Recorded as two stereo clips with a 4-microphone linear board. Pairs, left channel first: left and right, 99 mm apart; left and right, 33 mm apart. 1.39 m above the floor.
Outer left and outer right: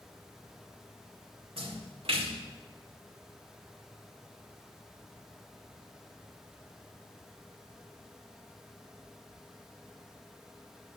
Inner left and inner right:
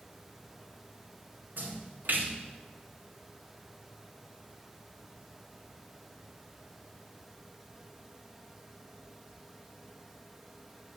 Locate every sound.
1.6 s a splash: 70° right (ahead or behind), 1.8 m